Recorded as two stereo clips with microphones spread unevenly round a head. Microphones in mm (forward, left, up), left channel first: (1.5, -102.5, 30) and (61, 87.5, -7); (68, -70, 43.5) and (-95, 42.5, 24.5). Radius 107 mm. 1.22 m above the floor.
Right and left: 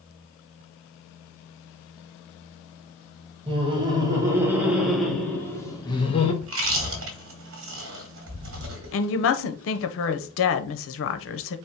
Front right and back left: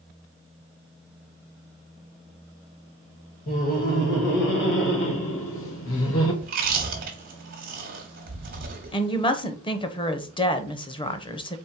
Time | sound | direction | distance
3.5 | laughter | 15° left | 2 m
6.4 | chewing | 95° left | 1.3 m
8.9 | a woman speaking | 100° right | 0.7 m